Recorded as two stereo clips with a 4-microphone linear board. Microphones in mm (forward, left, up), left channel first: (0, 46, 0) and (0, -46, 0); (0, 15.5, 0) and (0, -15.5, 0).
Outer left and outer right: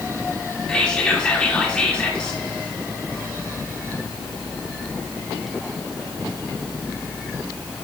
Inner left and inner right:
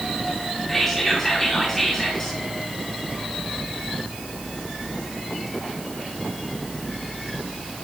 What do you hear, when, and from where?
0.7 s whispering: 10° left (ahead or behind), 1.4 m